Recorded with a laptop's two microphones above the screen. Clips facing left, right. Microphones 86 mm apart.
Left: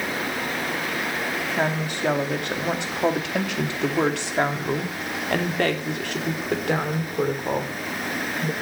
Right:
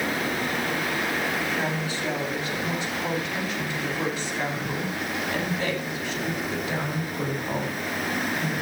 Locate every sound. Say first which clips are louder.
1.6 s a woman speaking: left 3 dB; 55° left (ahead or behind), 2 m; by 8.5 s 50° left (ahead or behind), 3.5 m